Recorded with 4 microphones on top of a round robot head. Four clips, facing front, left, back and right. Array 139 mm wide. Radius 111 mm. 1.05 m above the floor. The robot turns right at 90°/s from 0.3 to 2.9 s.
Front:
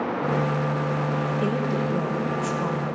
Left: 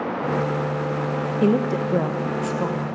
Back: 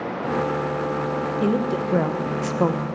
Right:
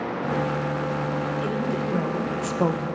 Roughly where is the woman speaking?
Left.